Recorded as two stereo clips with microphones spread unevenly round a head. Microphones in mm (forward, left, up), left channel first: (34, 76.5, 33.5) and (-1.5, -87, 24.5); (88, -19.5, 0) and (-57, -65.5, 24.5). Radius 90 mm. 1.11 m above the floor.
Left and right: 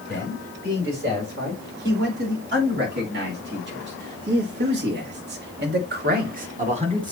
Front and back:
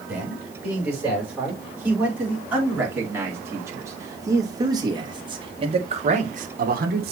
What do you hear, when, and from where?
0.1 s a man speaking: 80° right, 5.5 m; by 7.1 s 160° right, 1.0 m